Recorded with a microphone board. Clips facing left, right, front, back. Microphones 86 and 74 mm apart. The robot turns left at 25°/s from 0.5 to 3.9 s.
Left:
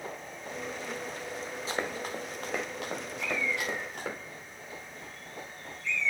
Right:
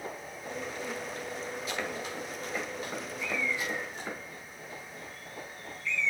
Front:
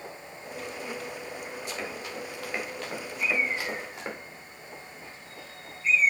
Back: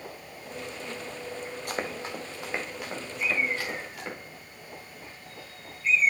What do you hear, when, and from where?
1.7 s running footsteps: 150° left, 1.8 m; by 4.2 s 65° left, 5 m
3.2 s a bird: 115° left, 4.5 m; by 6.1 s 95° left, 4.5 m